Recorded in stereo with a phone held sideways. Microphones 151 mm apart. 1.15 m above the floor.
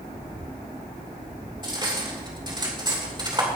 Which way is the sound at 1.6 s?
30° right (ahead or behind).